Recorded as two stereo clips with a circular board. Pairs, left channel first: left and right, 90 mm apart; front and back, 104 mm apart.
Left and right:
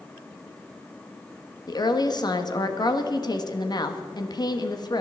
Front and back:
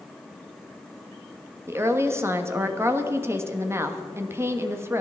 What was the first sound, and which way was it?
A woman speaking, 120° left.